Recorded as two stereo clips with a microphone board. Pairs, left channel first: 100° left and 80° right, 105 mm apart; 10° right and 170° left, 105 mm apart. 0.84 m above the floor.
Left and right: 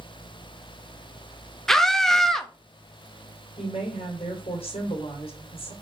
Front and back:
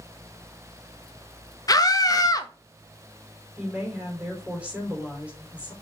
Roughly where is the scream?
Ahead.